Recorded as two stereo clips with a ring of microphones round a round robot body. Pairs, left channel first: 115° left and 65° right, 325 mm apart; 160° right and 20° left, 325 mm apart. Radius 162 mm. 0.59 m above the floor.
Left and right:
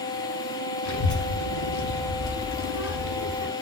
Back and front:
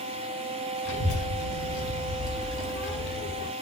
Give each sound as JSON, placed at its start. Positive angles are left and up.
{"t": 0.8, "sound": "a child speaking", "azimuth_deg": 155, "distance_m": 3.5}